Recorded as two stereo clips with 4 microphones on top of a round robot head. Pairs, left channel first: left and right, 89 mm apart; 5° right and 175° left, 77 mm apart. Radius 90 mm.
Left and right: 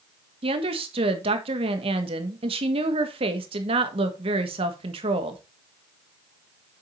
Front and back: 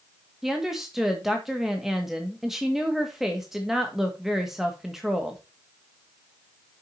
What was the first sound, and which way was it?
A woman speaking, 100° right.